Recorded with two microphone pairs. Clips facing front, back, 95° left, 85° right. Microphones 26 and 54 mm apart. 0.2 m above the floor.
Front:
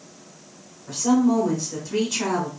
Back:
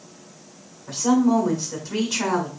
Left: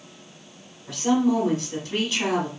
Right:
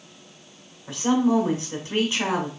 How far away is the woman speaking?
About 1.3 m.